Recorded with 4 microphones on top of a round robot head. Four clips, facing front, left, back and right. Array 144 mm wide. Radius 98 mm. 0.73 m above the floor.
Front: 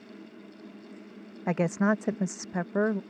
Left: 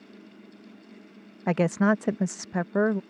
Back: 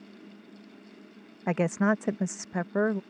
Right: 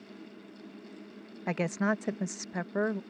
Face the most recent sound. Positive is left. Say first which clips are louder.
# left 7 dB, even
turn(degrees=95)